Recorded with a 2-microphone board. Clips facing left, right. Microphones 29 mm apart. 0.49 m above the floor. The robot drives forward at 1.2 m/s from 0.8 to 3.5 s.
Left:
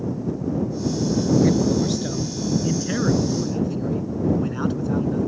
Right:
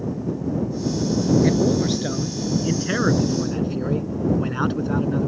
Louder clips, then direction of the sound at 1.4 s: Even; 20° right (ahead or behind).